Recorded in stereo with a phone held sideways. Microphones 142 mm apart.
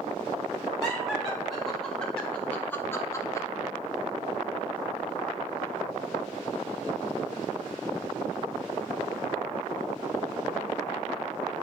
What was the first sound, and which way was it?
Laughter, centre (ahead or behind).